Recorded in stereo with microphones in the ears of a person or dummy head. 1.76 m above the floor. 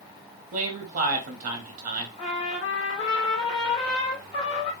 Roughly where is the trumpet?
Left.